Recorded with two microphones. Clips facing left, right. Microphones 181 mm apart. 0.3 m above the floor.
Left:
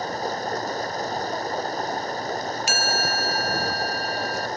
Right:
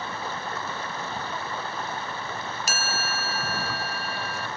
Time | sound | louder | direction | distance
0.0 | running water | left 6 dB | 40° left (ahead or behind) | ?
2.7 | a chime | left 5 dB | 40° right (ahead or behind) | ?